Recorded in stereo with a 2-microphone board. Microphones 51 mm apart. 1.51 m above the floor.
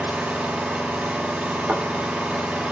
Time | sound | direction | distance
0.0 | an engine running | 25° right (ahead or behind) | 1.8 m
1.7 | a thud | 50° right (ahead or behind) | 1.7 m